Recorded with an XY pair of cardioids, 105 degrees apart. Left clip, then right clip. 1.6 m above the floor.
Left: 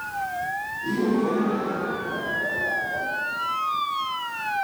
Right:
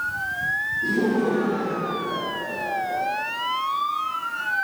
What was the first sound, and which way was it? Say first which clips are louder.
Laughter: right 2 dB; 60° right.